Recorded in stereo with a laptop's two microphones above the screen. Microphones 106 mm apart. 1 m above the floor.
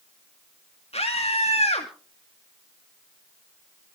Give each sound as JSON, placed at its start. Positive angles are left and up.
{"t": 0.9, "sound": "a scream", "side_deg": 70, "distance_m": 2.5}